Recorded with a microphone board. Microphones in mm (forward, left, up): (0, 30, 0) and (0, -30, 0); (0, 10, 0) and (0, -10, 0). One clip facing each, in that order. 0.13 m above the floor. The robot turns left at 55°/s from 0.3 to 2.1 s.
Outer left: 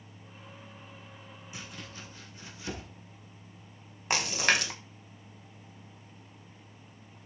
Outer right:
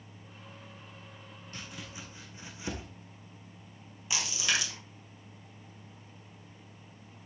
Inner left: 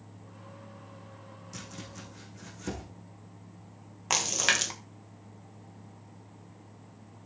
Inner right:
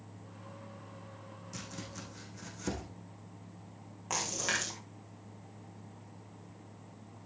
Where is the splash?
55° left (ahead or behind), 1.3 m.